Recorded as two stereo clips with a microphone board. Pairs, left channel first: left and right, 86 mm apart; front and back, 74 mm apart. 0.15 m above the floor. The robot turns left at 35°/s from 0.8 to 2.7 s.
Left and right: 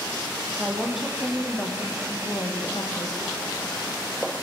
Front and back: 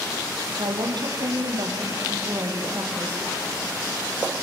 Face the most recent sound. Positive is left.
turn(degrees=125)